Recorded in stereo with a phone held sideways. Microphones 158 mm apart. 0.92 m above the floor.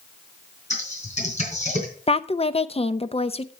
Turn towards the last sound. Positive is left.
turn(degrees=40)  # may be behind; listen again after turning